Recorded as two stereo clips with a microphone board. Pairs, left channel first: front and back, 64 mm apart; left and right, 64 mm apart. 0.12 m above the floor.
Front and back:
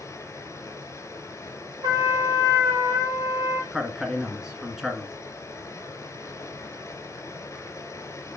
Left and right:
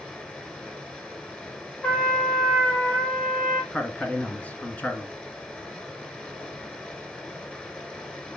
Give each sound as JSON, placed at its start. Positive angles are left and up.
{"t": 0.0, "sound": "running water", "azimuth_deg": 20, "distance_m": 1.7}
{"t": 1.8, "sound": "a trumpet", "azimuth_deg": 165, "distance_m": 1.6}
{"t": 3.7, "sound": "a man speaking", "azimuth_deg": 105, "distance_m": 1.8}